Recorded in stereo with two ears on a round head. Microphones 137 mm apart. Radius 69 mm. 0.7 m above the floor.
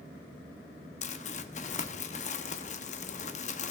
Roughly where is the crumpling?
Left.